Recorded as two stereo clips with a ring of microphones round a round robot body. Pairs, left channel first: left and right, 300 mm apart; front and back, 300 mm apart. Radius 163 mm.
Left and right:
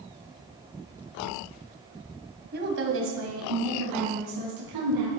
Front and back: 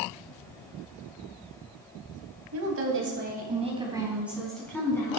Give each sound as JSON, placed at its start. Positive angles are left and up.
{"t": 2.5, "sound": "a woman speaking", "azimuth_deg": -145, "distance_m": 3.0}